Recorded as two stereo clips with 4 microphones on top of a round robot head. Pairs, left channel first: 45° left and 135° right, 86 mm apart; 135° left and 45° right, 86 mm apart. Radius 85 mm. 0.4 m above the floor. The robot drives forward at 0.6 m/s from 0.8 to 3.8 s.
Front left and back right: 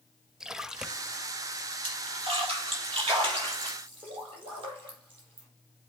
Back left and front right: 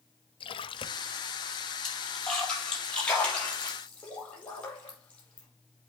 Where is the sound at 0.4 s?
140° left, 0.7 m; by 1.2 s 150° left, 0.9 m.